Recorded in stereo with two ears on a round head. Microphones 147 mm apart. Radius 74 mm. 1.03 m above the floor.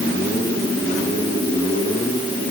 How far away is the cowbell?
I don't hear a cowbell.